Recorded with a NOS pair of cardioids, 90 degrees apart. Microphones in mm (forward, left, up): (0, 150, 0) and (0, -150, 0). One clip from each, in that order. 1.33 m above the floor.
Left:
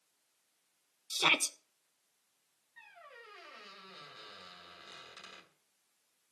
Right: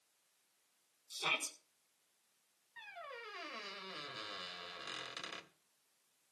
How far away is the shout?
About 1.5 m.